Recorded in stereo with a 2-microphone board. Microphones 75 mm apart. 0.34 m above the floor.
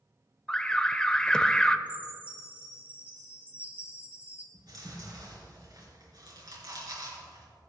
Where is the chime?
20° right (ahead or behind), 3 m.